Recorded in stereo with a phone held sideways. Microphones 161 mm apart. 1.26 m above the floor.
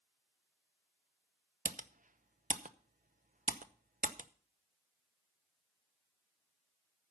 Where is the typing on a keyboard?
55° right (ahead or behind), 0.7 m.